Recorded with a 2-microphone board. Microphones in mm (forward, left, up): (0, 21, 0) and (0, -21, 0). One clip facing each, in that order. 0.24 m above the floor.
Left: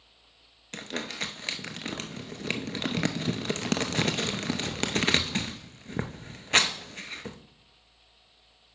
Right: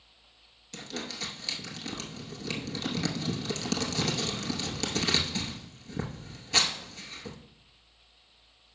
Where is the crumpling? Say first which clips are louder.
Left 4 dB; 50° left (ahead or behind), 0.7 m.